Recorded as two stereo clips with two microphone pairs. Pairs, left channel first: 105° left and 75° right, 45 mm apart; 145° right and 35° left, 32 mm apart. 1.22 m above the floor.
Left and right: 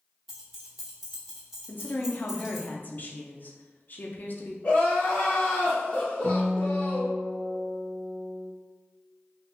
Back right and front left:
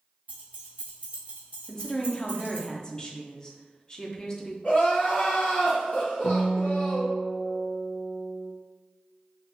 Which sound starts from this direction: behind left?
A woman speaking, at 1.7 s.